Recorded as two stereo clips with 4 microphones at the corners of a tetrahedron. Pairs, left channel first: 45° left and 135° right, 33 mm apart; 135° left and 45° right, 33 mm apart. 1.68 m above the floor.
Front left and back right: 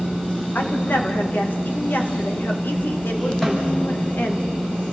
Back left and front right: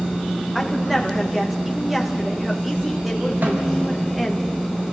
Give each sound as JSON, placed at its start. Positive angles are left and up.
{"t": 0.6, "sound": "a woman speaking", "azimuth_deg": 45, "distance_m": 2.5}
{"t": 3.4, "sound": "a snare drum", "azimuth_deg": -35, "distance_m": 5.5}